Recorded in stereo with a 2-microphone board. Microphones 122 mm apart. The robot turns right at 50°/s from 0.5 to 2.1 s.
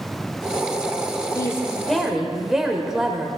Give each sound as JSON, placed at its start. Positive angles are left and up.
{"t": 1.4, "sound": "a woman speaking", "azimuth_deg": 150, "distance_m": 1.7}